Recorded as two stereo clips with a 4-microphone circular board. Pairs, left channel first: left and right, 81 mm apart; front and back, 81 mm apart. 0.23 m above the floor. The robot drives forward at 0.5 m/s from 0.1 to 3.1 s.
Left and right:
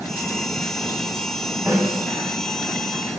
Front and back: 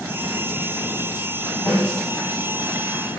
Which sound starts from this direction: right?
A snare drum, at 1.7 s.